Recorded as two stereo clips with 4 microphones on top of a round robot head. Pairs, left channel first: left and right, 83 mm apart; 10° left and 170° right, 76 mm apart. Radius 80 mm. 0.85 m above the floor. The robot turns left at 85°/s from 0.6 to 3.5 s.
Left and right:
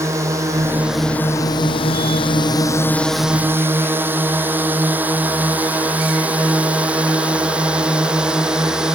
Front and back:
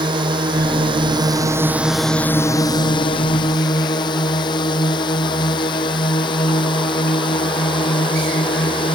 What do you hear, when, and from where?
0.0 s a drone: 150° right; by 8.9 s 10° right